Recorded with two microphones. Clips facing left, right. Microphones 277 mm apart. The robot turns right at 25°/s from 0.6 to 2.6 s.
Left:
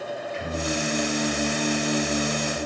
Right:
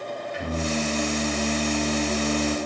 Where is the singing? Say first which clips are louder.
Right 2 dB; 95° right, 3.5 m; by 2.6 s 45° right, 3.5 m.